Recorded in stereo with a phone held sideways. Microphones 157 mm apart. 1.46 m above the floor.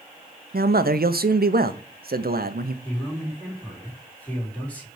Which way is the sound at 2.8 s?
10° left (ahead or behind).